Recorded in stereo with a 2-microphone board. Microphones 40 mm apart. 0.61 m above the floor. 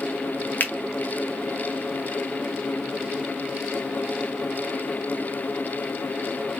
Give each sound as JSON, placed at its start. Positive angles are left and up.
{"t": 0.6, "sound": "a finger snap", "side_deg": 50, "distance_m": 0.6}